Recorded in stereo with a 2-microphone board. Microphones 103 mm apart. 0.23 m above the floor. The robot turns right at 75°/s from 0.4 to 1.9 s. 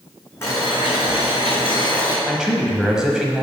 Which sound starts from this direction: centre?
A man speaking, at 2.3 s.